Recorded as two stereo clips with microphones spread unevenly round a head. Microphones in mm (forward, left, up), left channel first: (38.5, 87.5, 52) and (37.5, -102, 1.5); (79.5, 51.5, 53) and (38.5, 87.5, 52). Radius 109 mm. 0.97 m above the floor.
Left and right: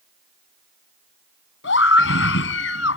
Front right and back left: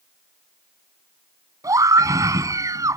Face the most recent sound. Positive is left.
turn(degrees=125)